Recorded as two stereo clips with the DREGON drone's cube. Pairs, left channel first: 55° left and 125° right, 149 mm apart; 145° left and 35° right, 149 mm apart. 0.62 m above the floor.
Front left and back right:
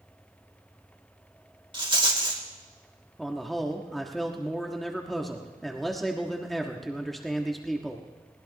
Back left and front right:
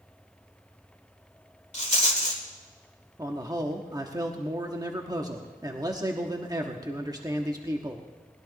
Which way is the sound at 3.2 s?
30° right.